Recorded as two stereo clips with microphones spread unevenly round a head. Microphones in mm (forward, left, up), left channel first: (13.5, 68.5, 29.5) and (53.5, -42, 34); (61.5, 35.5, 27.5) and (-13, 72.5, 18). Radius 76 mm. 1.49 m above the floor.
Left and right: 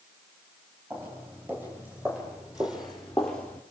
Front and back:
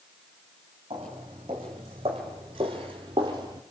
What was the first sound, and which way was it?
Footsteps, 145° right.